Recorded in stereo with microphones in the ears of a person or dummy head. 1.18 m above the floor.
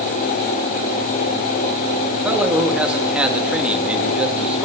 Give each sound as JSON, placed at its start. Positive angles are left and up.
{"t": 2.1, "sound": "a man speaking", "side_deg": -5, "distance_m": 1.7}